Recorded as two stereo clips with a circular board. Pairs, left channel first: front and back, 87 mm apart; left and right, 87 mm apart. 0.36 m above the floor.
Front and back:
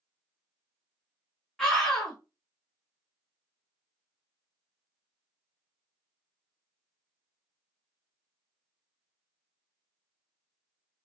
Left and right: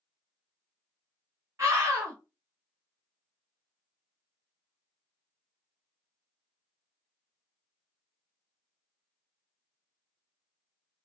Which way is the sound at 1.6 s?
85° right.